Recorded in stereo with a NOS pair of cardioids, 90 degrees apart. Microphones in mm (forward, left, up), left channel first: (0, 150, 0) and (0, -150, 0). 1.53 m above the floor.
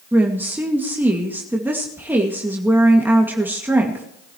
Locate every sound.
0.1 s a woman speaking: 5° right, 2 m